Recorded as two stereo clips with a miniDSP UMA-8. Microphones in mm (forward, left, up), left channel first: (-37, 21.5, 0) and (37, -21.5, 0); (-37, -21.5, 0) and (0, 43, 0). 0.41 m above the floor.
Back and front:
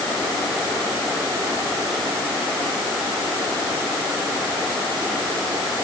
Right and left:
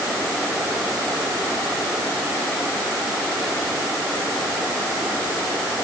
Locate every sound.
Only background noise.